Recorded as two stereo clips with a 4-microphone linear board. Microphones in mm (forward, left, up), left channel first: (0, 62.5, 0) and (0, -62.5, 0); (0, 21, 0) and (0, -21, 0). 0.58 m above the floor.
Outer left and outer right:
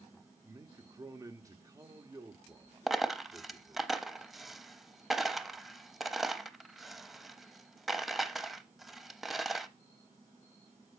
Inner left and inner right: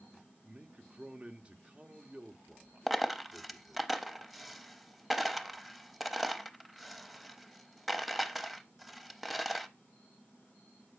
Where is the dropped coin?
Centre (ahead or behind), 0.6 m.